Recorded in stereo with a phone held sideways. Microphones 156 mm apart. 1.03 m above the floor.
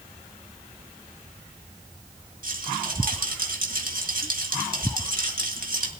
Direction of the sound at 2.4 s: 65° right (ahead or behind).